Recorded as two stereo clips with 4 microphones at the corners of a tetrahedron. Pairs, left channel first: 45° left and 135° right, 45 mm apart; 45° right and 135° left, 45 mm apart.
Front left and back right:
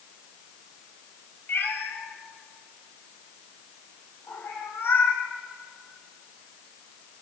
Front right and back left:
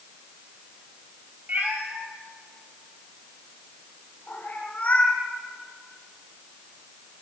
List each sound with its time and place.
1.5 s a cat meowing: 85° left, 3 m; by 5.2 s 10° left, 5 m